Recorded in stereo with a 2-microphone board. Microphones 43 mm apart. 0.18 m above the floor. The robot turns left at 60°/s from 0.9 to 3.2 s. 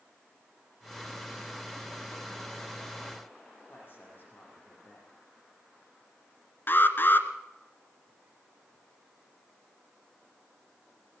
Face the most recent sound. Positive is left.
turn(degrees=50)  # may be behind; listen again after turning